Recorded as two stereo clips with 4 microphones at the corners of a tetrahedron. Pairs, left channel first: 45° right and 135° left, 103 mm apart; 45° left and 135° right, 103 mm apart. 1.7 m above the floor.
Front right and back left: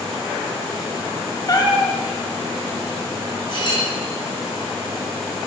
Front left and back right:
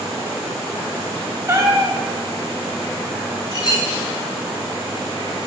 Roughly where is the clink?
Ahead.